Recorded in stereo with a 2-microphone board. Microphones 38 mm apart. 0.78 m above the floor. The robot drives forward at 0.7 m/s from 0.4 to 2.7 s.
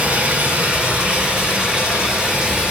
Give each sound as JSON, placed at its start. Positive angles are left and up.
{"t": 0.0, "sound": "running water", "side_deg": -45, "distance_m": 1.6}